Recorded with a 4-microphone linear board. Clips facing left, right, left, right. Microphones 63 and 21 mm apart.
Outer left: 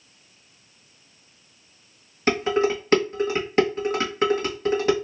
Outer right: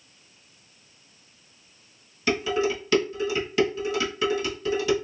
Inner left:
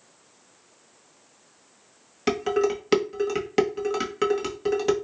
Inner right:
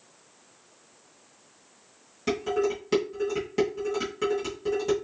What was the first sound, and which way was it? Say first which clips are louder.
Dishes clattering: outer left 3 dB, inner left 3 dB; 40° left (ahead or behind).